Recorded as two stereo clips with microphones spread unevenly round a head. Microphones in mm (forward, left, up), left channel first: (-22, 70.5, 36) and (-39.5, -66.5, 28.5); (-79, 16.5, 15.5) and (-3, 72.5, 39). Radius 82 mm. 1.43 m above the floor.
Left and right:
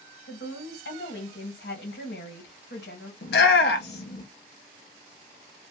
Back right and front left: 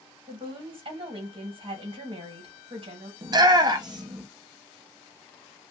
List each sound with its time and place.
0.3 s a woman speaking: 60° left, 1.4 m
3.2 s a shout: 75° left, 0.8 m